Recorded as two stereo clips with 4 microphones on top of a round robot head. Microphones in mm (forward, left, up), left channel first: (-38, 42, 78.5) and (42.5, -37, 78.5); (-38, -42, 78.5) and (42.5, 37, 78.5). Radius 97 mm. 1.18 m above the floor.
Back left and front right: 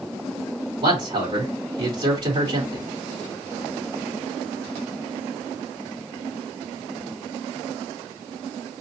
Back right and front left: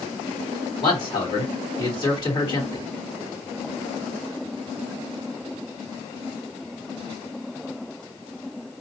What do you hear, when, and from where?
0.8 s a man speaking: 90° right, 3.5 m